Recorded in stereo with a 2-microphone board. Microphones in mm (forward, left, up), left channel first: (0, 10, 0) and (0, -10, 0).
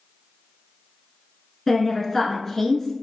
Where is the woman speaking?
20° left (ahead or behind), 1.1 m.